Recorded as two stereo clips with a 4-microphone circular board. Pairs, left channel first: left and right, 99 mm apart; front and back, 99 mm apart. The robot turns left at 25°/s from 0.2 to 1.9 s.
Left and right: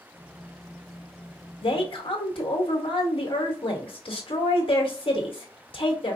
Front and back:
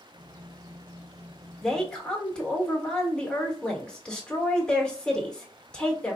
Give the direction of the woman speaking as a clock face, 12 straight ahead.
9 o'clock.